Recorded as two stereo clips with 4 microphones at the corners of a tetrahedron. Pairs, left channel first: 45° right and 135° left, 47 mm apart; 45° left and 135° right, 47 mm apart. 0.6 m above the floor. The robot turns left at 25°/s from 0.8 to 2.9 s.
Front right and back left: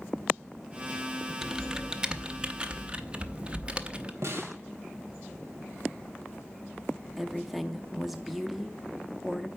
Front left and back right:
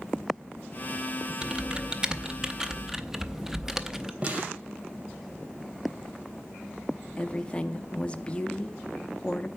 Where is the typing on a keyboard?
165° right, 0.7 m; by 4.1 s 160° left, 0.7 m.